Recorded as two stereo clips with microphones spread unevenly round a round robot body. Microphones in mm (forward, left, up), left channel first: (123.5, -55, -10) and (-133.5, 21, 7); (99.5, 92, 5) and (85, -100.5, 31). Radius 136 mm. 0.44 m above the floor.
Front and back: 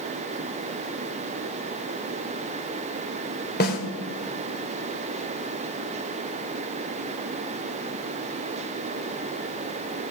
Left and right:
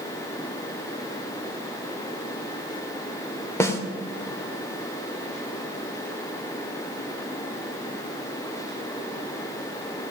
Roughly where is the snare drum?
Ahead.